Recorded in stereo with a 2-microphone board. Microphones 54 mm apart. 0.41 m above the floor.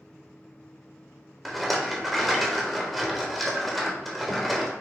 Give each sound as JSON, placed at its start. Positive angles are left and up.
{"t": 1.4, "sound": "a rattle", "side_deg": 0, "distance_m": 0.9}